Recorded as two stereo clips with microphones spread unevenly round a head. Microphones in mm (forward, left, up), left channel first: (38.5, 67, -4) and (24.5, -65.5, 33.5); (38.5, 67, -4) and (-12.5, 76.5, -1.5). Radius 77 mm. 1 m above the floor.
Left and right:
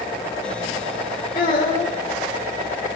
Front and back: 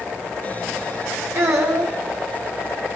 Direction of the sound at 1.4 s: 140° left.